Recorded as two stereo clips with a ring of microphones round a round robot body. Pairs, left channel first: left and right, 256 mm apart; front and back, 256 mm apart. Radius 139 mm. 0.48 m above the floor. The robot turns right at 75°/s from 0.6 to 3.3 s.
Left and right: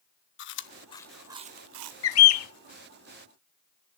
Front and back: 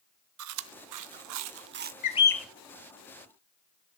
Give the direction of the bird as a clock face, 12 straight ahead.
10 o'clock.